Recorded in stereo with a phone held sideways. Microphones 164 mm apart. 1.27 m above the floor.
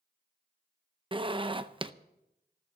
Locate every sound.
1.1 s a zipper: 30° right (ahead or behind), 0.6 m